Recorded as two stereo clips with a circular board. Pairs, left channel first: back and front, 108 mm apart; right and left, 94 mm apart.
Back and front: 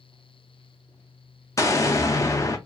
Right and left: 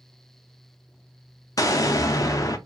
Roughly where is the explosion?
Behind right.